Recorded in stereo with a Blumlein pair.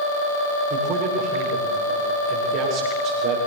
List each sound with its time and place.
0.7 s a man speaking: 40° right, 7.5 m